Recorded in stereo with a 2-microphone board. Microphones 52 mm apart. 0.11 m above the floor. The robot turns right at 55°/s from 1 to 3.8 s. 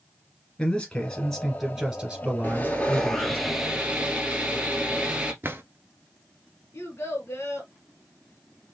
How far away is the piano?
I don't hear a piano.